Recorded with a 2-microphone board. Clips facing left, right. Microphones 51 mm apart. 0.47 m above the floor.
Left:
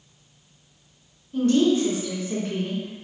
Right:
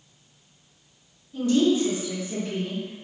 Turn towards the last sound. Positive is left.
turn(degrees=55)  # may be behind; listen again after turning